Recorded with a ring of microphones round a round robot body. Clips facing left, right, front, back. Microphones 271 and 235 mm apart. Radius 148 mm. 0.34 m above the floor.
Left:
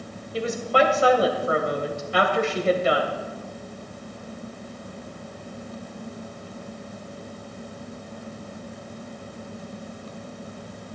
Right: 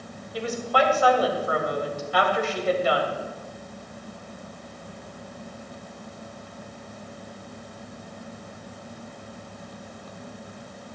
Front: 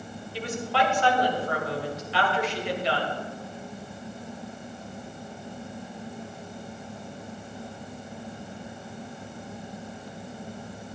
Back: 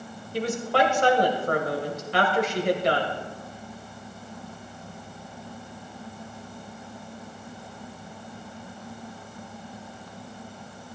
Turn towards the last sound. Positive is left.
turn(degrees=150)